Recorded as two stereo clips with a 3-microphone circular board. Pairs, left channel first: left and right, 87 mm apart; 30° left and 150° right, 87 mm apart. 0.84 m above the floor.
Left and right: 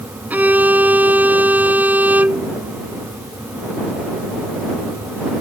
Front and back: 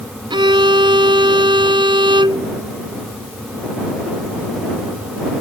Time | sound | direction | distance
0.3 | a violin | 160° right | ?